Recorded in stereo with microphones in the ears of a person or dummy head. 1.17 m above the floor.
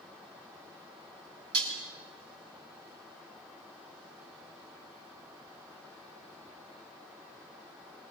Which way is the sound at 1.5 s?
80° right.